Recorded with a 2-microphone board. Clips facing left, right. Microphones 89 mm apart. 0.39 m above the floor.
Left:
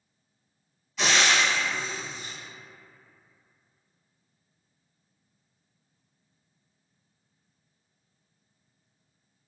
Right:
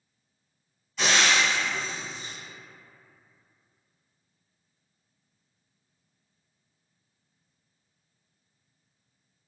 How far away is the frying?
About 1.2 m.